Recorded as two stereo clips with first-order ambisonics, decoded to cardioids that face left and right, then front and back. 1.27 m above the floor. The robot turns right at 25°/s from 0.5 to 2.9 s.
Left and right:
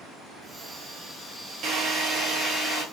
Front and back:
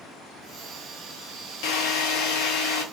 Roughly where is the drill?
Ahead right.